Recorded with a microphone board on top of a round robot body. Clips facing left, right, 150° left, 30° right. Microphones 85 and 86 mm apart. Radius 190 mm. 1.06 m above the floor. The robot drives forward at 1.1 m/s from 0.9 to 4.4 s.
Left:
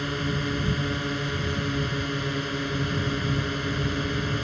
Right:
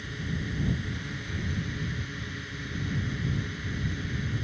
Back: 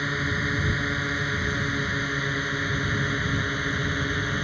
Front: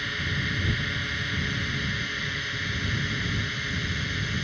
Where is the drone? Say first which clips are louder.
Left 8 dB, back 4 dB; 85° left; by 4.4 s 95° left.